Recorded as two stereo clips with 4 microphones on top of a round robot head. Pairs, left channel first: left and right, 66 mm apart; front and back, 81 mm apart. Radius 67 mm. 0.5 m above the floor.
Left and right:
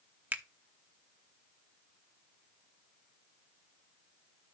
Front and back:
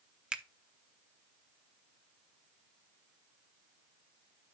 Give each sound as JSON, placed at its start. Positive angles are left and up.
{"t": 0.3, "sound": "a finger snap", "azimuth_deg": -120, "distance_m": 0.8}